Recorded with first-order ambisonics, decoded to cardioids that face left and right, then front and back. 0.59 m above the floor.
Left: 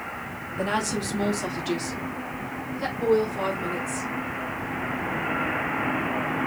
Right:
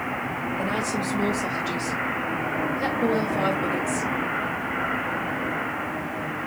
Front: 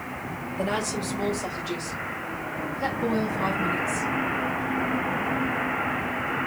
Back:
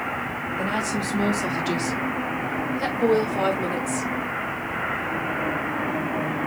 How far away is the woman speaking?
About 1.1 m.